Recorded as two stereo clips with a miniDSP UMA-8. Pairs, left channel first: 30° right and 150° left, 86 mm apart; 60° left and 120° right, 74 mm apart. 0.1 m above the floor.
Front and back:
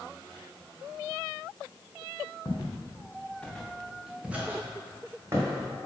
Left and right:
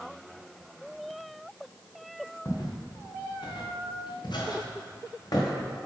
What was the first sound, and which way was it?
Footsteps, 20° left.